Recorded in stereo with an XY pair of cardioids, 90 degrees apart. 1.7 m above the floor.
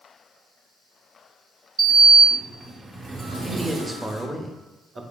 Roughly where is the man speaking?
Ahead.